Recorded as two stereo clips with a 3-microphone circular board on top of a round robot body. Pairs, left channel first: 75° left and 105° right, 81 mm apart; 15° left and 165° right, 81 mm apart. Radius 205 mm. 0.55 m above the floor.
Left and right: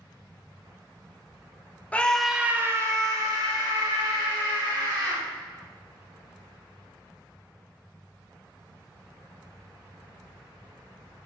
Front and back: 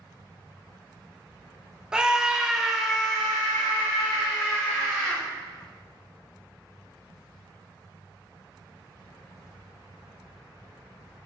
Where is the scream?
125° left, 0.7 m; by 5.2 s 75° right, 1.8 m.